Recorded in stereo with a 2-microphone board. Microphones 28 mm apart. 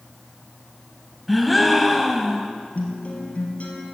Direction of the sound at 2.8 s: 45° left (ahead or behind).